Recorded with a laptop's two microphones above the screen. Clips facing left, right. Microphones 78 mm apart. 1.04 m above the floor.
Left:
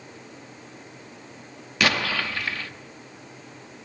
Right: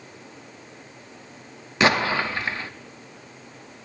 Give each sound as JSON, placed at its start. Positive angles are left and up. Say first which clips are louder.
{"t": 1.8, "sound": "an explosion", "louder": "right 4 dB", "side_deg": -25, "distance_m": 0.5}